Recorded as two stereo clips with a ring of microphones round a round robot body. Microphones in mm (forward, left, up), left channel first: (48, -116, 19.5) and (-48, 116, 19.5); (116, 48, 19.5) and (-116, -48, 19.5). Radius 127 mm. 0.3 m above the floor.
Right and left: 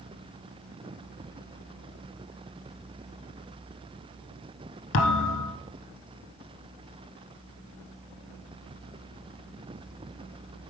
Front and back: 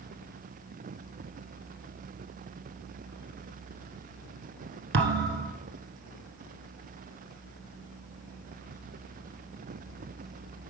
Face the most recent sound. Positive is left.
turn(degrees=-105)